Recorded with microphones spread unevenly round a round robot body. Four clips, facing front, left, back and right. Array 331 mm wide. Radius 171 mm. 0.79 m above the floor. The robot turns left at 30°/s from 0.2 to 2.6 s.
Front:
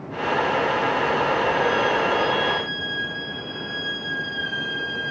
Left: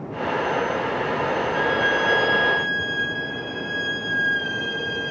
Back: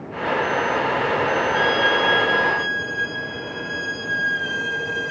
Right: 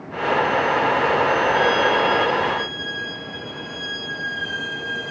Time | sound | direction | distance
1.5 | a violin | 150° right | 1.1 m